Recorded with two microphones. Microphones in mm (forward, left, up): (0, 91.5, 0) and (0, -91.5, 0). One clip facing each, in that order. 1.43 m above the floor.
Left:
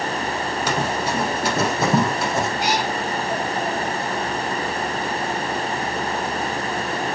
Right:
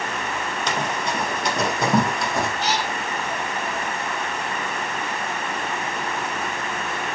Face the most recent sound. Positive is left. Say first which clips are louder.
# left 3 dB
turn(degrees=10)  # may be behind; listen again after turning